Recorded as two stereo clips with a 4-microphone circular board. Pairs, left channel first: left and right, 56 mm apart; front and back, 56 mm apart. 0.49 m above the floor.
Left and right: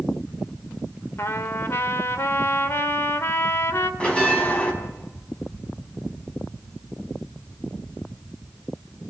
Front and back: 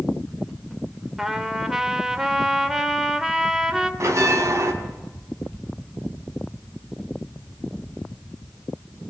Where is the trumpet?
100° left, 1.5 m.